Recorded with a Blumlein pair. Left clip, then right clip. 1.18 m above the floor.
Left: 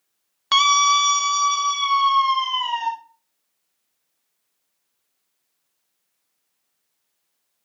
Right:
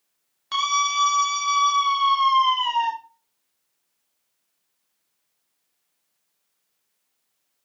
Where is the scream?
30° left, 1.1 m; by 2.9 s straight ahead, 3.5 m.